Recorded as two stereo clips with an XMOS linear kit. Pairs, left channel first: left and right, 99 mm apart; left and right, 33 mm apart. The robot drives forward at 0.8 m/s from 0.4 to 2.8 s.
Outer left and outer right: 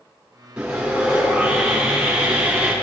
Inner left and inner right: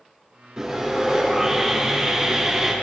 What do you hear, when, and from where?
0.6 s sawing: 10° right (ahead or behind), 5 m; by 2.7 s 15° right (ahead or behind), 3 m